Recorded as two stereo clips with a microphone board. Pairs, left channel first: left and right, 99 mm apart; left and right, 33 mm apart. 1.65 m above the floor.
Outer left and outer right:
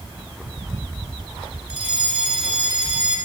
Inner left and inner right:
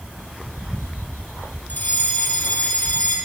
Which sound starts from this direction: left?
A fire alarm, at 1.7 s.